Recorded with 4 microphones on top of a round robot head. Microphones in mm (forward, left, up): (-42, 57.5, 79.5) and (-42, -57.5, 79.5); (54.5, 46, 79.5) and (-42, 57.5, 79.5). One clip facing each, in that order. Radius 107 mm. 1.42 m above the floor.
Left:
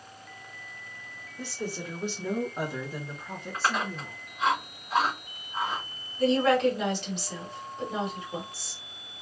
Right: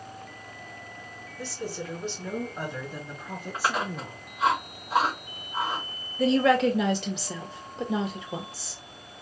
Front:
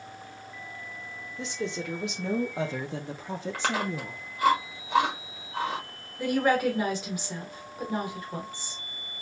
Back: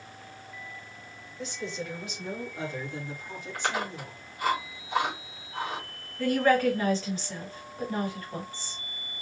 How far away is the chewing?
About 2 m.